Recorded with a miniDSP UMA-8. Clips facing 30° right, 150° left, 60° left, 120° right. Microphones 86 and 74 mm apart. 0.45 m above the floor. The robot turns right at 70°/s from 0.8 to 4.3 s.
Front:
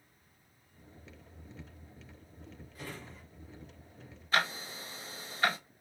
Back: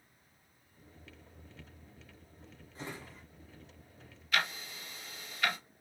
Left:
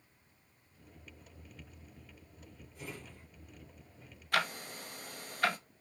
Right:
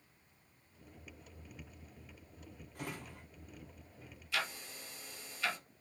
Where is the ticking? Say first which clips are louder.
Front 3 dB, left 6 dB; 30° left, 0.5 m.